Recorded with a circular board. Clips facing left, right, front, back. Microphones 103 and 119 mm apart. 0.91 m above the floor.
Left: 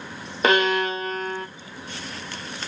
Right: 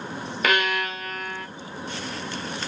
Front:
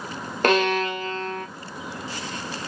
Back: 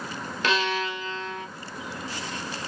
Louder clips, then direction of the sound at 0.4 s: Left 5 dB, front 6 dB; 30° left.